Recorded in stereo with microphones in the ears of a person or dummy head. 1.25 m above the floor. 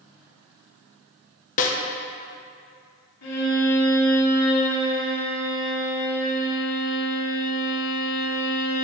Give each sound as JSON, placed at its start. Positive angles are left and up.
{"t": 1.6, "sound": "a snare drum", "side_deg": 40, "distance_m": 1.1}
{"t": 3.2, "sound": "a violin", "side_deg": 80, "distance_m": 3.0}